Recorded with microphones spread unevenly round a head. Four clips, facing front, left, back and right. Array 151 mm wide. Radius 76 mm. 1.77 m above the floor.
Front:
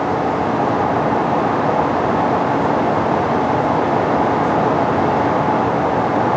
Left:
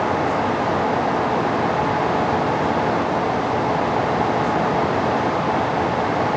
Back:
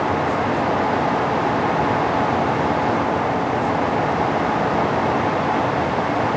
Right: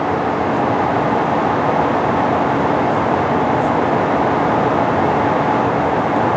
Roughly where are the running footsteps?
No running footsteps in this recording.